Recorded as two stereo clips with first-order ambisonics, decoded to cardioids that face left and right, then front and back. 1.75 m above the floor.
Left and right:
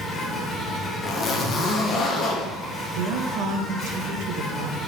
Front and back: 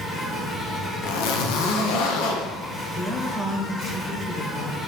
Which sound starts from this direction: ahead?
A zipper, at 1.0 s.